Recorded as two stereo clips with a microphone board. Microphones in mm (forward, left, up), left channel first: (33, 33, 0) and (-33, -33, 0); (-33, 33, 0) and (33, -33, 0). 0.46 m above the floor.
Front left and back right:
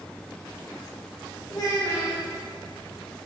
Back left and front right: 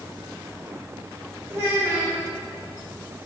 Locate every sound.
1.5 s a child speaking: 10° left, 1.1 m